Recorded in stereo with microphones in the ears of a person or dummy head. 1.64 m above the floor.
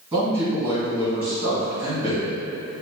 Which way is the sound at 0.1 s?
10° right (ahead or behind).